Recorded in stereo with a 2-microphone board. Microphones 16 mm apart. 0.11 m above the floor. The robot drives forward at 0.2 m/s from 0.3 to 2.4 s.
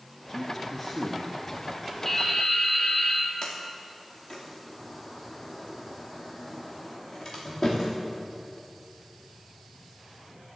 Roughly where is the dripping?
Centre.